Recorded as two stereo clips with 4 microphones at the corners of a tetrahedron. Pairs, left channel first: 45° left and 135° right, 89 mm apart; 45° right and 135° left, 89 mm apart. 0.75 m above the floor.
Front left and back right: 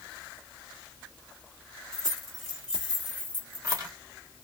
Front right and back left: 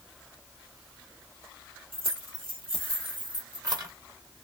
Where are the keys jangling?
130° left, 1.9 m; by 3.9 s straight behind, 1.2 m.